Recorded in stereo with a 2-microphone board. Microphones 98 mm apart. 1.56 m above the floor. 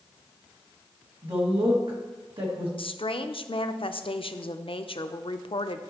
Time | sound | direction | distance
1.2 | a woman speaking | 60° right (ahead or behind) | 2 m
2.8 | a woman speaking | 65° left (ahead or behind) | 0.5 m